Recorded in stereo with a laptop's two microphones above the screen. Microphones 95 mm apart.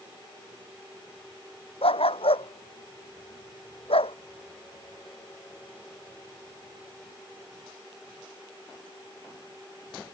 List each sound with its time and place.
1.8 s a dog barking: 80° left; by 4.2 s 85° left